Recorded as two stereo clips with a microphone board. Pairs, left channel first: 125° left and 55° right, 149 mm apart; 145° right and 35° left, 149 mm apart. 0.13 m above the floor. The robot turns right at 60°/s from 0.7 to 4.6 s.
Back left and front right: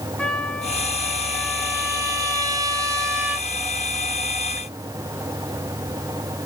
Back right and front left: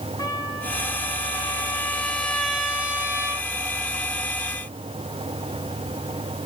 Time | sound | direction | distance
0.2 | a trumpet | 165° right | 1.7 m